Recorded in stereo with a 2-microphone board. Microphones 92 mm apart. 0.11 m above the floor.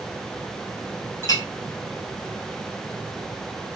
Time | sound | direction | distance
1.2 | a clink | 45° left (ahead or behind) | 1.6 m